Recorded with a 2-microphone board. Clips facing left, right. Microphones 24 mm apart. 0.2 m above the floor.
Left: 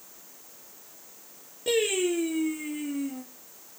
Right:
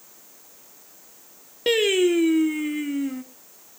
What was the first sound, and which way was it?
Singing, 60° right (ahead or behind).